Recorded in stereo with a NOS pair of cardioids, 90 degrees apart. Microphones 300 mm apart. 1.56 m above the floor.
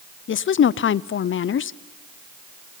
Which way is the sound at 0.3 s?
40° left.